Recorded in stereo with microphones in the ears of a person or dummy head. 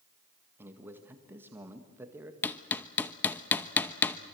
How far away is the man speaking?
About 1.8 m.